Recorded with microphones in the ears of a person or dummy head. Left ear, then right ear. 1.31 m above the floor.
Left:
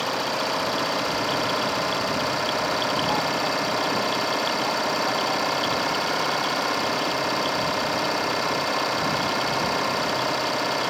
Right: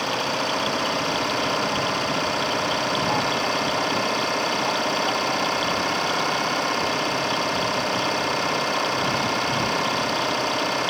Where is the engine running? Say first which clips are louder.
Right 1 dB; 5° left (ahead or behind).